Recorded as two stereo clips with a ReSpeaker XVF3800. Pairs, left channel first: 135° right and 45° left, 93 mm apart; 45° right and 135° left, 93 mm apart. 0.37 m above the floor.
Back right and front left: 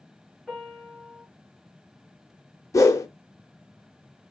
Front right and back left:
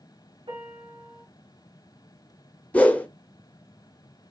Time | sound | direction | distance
0.5 | a piano | 130° left | 1.2 m
2.7 | a whoosh | 110° right | 0.6 m